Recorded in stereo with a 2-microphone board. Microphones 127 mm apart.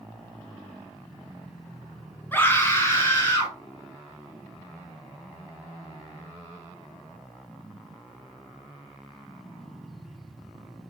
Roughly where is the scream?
Centre.